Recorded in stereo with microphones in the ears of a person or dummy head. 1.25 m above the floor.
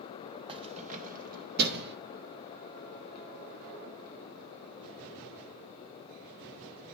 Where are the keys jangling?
30° right (ahead or behind), 1.0 m; by 2.0 s 55° right (ahead or behind), 1.7 m.